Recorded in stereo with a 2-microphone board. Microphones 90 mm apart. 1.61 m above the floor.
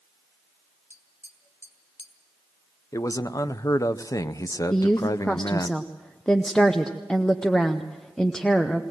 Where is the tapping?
30° left (ahead or behind), 2.5 m.